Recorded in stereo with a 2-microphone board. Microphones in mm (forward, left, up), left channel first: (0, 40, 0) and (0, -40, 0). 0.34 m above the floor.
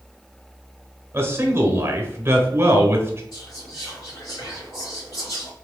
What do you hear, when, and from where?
1.1 s a man speaking: 30° right (ahead or behind), 1.1 m
3.3 s whispering: 60° left (ahead or behind), 2 m